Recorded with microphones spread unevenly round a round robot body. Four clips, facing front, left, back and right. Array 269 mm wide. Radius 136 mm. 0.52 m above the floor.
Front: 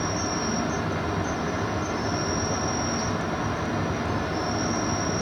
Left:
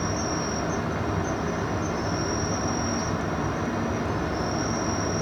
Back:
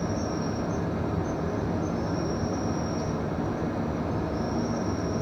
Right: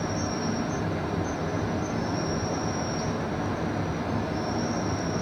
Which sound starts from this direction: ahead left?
An insect, at 0.0 s.